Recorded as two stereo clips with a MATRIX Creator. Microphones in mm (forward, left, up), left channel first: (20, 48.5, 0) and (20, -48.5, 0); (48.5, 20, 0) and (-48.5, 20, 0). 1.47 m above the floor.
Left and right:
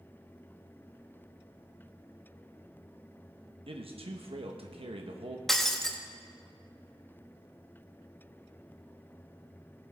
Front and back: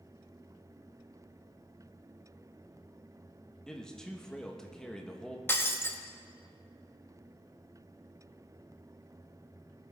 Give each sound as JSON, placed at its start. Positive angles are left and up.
{"t": 3.7, "sound": "a man speaking", "azimuth_deg": -80, "distance_m": 1.3}
{"t": 5.5, "sound": "breaking glass", "azimuth_deg": 10, "distance_m": 0.9}